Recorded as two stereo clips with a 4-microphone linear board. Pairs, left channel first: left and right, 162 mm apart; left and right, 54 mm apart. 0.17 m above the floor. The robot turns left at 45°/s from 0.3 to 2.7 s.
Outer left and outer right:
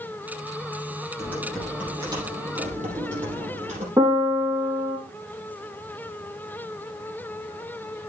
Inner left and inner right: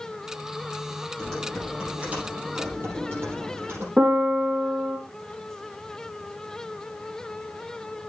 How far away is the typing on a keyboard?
About 5 m.